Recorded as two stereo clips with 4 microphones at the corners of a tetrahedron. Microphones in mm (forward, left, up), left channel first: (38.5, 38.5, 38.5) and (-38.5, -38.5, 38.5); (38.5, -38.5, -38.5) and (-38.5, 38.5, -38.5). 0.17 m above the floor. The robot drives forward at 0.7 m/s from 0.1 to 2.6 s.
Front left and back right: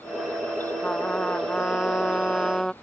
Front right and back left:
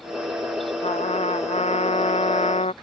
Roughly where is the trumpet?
Ahead right.